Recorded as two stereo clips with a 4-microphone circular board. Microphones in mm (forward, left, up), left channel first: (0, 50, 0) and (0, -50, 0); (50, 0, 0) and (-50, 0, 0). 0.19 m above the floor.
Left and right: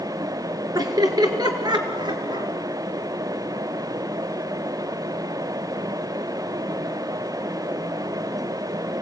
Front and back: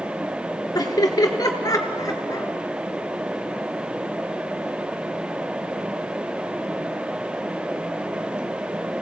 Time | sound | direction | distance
0.8 | laughter | 45° right | 2.5 m